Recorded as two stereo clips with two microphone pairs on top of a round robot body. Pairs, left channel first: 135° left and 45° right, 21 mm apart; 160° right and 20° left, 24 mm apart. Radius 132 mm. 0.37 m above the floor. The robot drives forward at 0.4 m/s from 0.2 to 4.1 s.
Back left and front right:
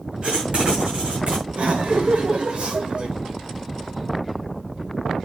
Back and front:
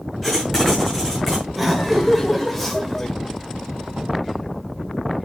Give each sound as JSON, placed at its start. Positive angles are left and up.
{"t": 0.2, "sound": "writing", "azimuth_deg": -70, "distance_m": 7.0}
{"t": 1.6, "sound": "laughter", "azimuth_deg": -65, "distance_m": 2.0}